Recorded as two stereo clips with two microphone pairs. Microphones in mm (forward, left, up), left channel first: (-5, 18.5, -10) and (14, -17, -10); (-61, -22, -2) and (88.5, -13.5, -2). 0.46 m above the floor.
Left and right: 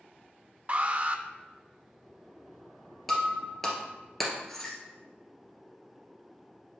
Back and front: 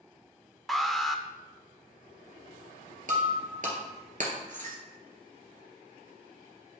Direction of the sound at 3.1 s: 35° left.